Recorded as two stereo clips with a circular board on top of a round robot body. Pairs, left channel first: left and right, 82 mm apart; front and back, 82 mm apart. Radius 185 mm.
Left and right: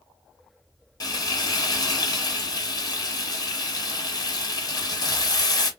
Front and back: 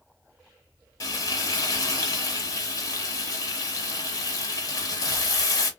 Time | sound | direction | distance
1.0 | frying | 45° left | 1.3 m